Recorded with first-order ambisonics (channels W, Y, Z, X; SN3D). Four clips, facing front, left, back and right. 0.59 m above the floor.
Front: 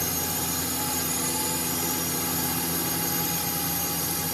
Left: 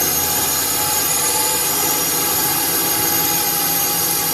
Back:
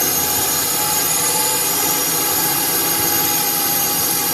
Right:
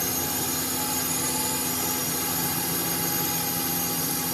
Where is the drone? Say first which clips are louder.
Left 8 dB, back 9 dB; 135° left.